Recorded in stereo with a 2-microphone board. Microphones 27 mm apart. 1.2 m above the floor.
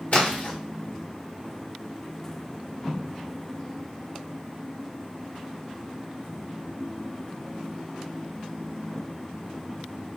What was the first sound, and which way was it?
A splash, 55° left (ahead or behind).